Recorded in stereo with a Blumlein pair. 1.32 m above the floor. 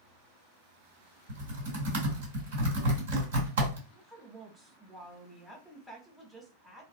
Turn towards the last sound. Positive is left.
turn(degrees=0)